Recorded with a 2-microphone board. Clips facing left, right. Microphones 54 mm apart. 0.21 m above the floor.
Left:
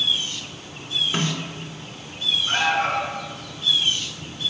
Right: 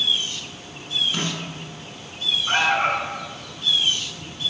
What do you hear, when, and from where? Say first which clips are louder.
1.1 s a snare drum: left 2 dB; 25° left (ahead or behind), 2.5 m
2.5 s an alarm: right 2 dB; 25° right (ahead or behind), 1.5 m